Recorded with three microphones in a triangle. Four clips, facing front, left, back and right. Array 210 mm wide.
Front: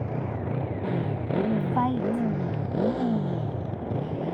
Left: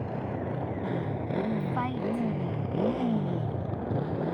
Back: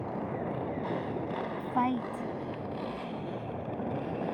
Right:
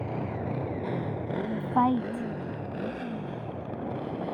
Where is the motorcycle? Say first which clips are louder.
Even, front 3 dB; 15° right; by 4.3 s 40° left.